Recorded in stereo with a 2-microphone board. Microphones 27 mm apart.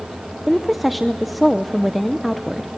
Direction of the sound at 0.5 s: Centre (ahead or behind).